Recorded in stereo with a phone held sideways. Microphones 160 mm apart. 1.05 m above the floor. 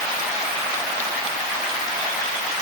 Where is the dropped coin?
No dropped coin in this recording.